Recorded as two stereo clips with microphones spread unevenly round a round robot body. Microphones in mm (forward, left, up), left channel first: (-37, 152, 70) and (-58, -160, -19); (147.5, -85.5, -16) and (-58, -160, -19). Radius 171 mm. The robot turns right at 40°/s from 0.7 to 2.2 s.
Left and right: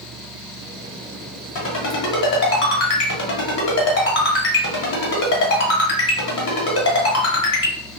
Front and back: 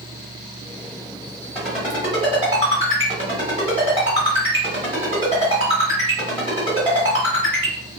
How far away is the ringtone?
About 1.3 m.